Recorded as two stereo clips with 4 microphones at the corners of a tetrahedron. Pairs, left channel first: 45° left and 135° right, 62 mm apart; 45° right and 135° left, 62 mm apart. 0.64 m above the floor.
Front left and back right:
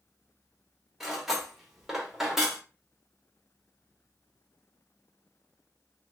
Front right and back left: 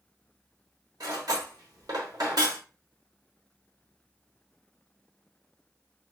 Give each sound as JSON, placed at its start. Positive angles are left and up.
{"t": 1.0, "sound": "cutlery clinking", "azimuth_deg": 140, "distance_m": 0.9}